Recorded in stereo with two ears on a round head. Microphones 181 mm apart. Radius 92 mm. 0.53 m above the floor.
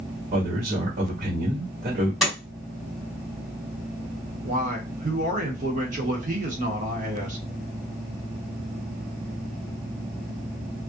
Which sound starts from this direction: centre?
A door slam, at 2.2 s.